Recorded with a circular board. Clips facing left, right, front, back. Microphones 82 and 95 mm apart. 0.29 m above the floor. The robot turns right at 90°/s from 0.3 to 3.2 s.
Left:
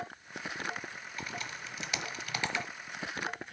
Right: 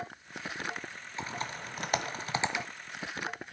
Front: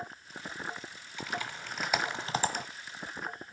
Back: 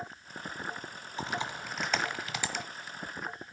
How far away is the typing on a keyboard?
About 1.3 m.